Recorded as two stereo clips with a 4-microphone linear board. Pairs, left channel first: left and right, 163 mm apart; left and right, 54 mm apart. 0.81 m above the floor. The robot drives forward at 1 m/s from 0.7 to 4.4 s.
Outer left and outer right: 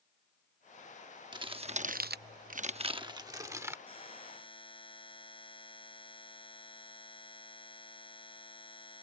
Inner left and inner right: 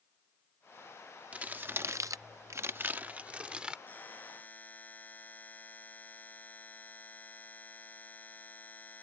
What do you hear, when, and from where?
1.3 s crumpling: 25° right (ahead or behind); by 3.8 s 15° right (ahead or behind)
3.9 s a buzzer: 30° left (ahead or behind)